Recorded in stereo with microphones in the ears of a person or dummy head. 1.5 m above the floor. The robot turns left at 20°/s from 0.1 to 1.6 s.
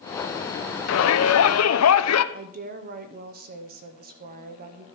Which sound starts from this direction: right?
A woman speaking, at 2.3 s.